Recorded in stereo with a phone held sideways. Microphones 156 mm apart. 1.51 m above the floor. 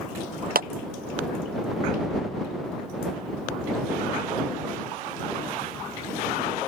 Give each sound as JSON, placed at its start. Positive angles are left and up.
{"t": 0.6, "sound": "a clap", "side_deg": -70}